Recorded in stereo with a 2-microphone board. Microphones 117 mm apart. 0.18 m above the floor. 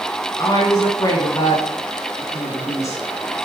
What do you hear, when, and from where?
0.4 s a woman speaking: 30° left (ahead or behind), 2 m; by 3.0 s 25° left (ahead or behind), 1.8 m